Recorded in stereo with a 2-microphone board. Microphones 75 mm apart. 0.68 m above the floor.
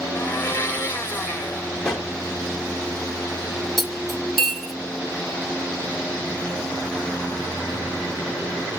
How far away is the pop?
About 2.0 m.